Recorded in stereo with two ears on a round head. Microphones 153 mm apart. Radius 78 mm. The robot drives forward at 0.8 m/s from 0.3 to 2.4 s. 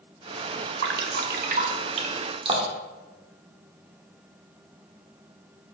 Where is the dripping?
70° right (ahead or behind), 0.9 m; by 3.0 s 30° right (ahead or behind), 1.7 m.